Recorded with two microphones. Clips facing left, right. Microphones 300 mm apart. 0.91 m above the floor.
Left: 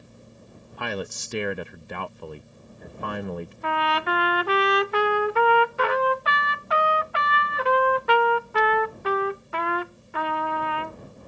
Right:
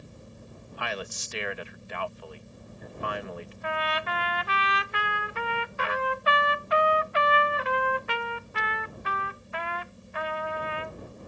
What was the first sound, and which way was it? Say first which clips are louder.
A man speaking: left 6 dB; 50° left (ahead or behind).